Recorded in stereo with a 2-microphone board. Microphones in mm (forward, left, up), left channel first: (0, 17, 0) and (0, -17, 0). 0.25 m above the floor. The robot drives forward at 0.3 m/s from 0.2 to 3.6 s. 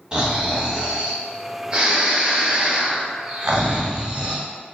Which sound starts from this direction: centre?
Snoring, at 0.1 s.